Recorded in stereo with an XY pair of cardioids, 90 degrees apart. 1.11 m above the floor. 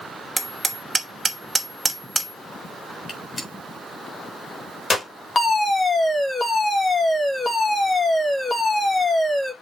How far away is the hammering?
About 2.5 m.